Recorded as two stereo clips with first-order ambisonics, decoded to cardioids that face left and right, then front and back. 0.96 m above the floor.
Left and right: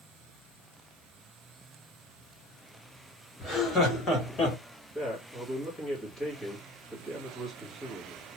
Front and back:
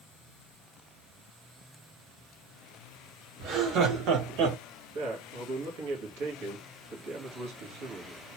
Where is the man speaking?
170° left, 1.3 m.